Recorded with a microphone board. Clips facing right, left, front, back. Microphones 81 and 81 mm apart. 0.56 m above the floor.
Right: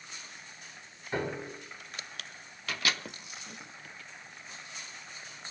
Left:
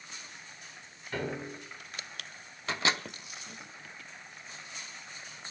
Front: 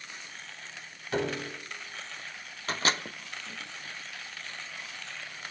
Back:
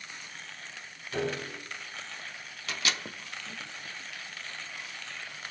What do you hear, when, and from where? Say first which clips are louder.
1.1 s a piano: right 2 dB, front 2 dB; 25° right, 4 m
2.7 s a microwave: left 3 dB, front 5 dB; 35° left, 0.6 m